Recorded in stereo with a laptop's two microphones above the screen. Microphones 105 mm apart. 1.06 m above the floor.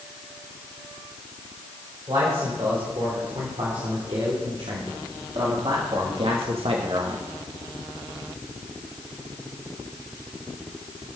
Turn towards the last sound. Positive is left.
turn(degrees=-60)  # may be behind; listen again after turning